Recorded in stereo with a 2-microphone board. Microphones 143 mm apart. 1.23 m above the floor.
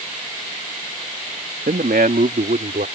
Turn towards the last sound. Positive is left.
turn(degrees=-80)